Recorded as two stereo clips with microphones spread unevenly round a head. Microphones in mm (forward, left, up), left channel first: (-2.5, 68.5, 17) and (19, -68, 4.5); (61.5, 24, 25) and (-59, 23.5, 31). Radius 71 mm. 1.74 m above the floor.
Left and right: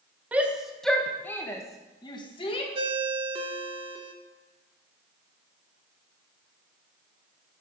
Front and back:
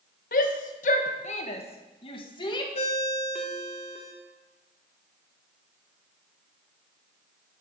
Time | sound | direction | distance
0.3 | a shout | straight ahead | 1.3 m
2.8 | a ringtone | 35° right | 1.1 m